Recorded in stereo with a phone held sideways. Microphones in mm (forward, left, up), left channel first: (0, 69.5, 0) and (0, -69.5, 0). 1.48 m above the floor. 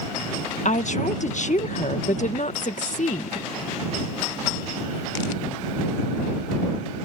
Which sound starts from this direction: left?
A woman speaking, at 0.7 s.